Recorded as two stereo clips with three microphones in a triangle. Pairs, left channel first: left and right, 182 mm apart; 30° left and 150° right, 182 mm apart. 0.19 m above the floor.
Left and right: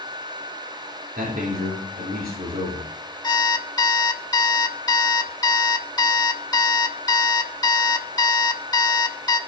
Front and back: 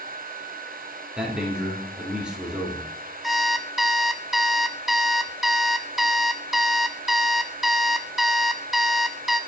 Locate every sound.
1.2 s a man speaking: 65° right, 3.5 m
3.2 s an alarm clock: 125° left, 0.7 m